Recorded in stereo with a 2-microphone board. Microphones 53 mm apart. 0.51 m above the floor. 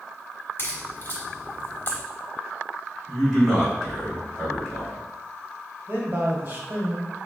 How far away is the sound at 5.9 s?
About 1.2 m.